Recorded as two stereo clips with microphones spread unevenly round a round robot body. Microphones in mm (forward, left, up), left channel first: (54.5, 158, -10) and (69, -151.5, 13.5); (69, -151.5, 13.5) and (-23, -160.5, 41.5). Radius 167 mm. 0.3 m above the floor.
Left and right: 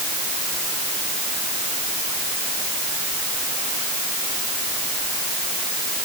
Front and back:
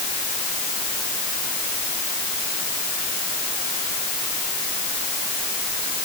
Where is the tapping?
I don't hear tapping.